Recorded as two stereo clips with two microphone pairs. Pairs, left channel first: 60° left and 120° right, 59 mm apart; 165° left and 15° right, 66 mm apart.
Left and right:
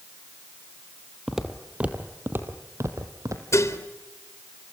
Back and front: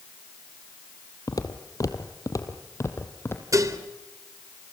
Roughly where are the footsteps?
Behind left.